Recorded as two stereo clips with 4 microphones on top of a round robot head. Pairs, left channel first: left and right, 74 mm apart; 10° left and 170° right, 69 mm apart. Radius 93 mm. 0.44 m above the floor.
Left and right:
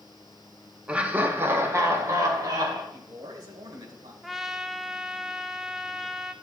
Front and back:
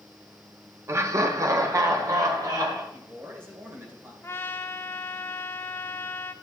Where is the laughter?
160° right, 1.1 m; by 2.8 s 130° right, 2.5 m.